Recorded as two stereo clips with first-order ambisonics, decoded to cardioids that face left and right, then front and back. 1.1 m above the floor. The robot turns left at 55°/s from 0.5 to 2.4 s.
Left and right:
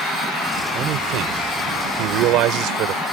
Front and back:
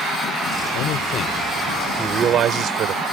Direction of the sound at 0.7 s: 35° right.